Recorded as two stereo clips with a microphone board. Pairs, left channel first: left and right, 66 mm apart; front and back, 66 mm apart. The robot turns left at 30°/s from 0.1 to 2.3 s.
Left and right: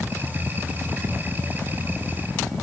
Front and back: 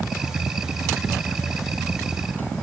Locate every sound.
Only background noise.